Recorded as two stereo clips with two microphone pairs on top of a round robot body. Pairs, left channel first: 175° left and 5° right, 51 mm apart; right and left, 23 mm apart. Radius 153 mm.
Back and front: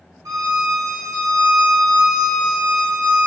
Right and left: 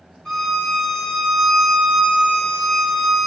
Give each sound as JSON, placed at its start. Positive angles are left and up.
{"t": 0.2, "sound": "a violin", "azimuth_deg": -35, "distance_m": 1.1}